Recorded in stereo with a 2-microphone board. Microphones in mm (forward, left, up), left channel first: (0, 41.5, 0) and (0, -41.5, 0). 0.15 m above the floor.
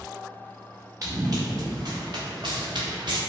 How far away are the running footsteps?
About 1.3 m.